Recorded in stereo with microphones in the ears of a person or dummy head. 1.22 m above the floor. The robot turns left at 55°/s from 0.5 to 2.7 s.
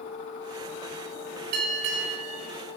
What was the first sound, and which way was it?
A bell, 55° right.